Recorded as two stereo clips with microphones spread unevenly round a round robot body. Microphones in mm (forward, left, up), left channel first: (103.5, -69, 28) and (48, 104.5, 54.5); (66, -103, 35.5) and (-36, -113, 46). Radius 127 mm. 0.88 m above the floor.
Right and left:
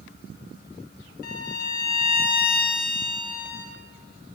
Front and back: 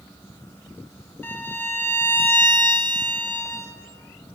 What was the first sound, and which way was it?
A violin, 60° right.